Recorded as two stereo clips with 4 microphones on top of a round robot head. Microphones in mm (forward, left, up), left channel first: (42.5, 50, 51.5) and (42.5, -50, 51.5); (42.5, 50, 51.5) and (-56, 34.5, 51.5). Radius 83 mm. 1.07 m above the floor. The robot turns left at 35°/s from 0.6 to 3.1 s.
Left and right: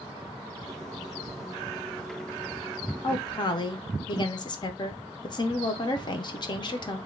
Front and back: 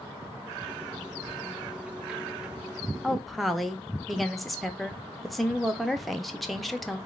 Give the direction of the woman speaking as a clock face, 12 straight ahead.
9 o'clock.